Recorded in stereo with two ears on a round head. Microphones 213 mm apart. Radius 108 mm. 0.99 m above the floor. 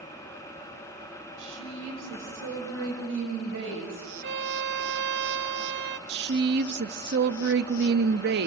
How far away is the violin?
About 0.8 m.